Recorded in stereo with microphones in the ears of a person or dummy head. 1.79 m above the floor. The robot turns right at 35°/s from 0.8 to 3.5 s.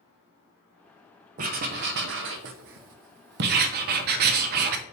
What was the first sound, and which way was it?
Writing, 135° right.